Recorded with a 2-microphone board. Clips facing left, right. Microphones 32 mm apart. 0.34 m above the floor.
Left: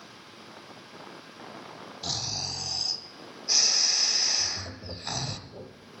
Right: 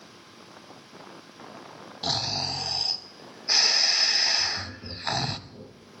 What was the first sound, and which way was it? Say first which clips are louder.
Snoring: right 5 dB; 40° right (ahead or behind).